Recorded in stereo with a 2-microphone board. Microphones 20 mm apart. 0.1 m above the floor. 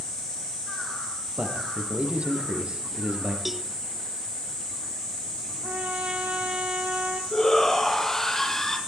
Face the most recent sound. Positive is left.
turn(degrees=20)  # may be behind; listen again after turning